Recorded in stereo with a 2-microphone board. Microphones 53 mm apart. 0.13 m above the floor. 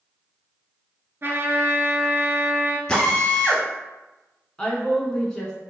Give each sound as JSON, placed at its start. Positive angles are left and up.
{"t": 1.2, "sound": "a trumpet", "side_deg": -45, "distance_m": 0.6}
{"t": 2.9, "sound": "a drill", "side_deg": 15, "distance_m": 0.9}
{"t": 4.6, "sound": "a woman speaking", "side_deg": 15, "distance_m": 1.0}